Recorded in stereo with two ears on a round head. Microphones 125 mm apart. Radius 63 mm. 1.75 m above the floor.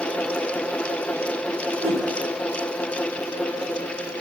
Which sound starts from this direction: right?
A whoosh, at 1.8 s.